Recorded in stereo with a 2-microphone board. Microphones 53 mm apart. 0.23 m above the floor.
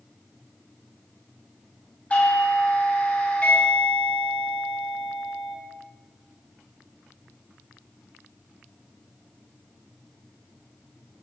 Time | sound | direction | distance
2.1 | a doorbell | 25° left (ahead or behind) | 1.5 m